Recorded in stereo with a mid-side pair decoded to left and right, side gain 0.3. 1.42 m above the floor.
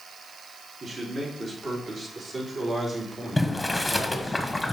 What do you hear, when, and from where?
0.8 s a man speaking: 55° right, 4 m; by 4.4 s 30° right, 2.5 m
3.4 s boiling: 15° left, 1.2 m